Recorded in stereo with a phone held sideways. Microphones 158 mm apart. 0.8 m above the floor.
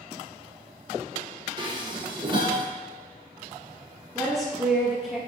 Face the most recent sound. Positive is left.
turn(degrees=0)  # may be behind; listen again after turning